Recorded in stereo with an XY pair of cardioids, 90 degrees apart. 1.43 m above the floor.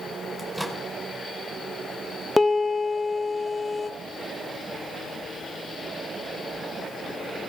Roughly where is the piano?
Ahead.